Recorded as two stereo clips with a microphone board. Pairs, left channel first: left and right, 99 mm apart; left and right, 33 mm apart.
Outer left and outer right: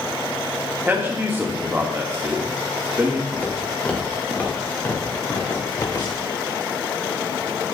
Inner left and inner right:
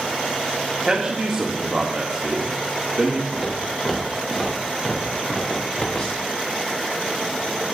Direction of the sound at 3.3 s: 10° left (ahead or behind).